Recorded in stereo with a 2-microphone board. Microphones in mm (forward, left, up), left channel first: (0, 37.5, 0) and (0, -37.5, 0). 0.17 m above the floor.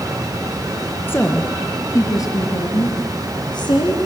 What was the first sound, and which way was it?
A woman speaking, 25° left (ahead or behind).